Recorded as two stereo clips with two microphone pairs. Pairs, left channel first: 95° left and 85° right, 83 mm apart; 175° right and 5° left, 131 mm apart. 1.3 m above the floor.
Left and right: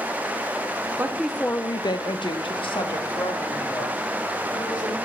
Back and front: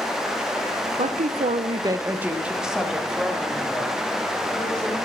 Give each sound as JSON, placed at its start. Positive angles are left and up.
{"t": 1.0, "sound": "a woman speaking", "azimuth_deg": -25, "distance_m": 0.6}